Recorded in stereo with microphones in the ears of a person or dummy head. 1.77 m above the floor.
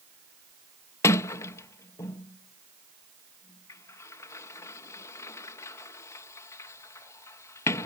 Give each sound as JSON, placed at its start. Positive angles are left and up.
{"t": 1.0, "sound": "a sliding door", "side_deg": 20}